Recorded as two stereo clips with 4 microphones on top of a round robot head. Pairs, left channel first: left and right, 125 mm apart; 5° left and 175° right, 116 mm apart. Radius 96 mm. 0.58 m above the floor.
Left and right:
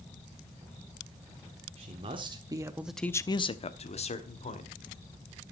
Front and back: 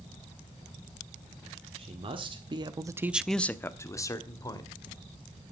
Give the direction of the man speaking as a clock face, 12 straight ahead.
4 o'clock.